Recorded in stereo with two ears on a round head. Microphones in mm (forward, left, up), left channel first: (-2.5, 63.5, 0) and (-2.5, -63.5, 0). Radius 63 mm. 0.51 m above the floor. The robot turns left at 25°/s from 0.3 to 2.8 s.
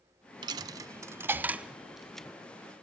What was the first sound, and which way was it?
A dropped coin, 30° right (ahead or behind).